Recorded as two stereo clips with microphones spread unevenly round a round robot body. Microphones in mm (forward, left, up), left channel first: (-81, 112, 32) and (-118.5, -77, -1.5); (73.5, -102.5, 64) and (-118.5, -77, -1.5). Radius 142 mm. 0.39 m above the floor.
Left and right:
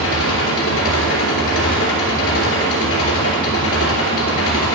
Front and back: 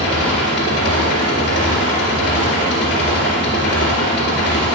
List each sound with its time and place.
0.0 s an engine running: 45° left, 2.5 m